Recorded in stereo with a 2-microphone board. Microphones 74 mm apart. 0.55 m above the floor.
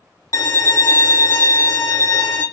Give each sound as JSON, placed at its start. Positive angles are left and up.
{"t": 0.3, "sound": "a violin", "side_deg": 60, "distance_m": 0.9}